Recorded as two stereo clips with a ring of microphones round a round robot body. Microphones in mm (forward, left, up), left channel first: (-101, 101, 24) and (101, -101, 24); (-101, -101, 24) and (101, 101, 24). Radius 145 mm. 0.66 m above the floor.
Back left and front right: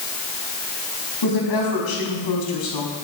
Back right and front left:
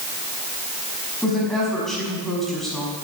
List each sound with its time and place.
1.2 s a woman speaking: 135° left, 5.5 m